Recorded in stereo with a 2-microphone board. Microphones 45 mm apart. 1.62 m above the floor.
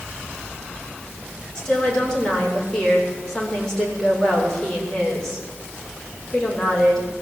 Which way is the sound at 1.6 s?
15° left (ahead or behind).